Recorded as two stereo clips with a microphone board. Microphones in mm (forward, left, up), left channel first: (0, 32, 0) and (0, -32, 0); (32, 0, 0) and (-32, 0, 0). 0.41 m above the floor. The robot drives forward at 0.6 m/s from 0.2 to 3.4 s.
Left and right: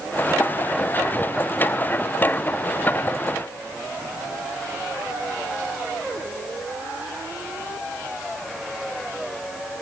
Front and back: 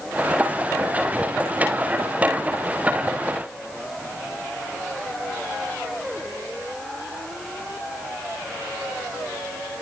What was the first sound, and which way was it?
Only background noise.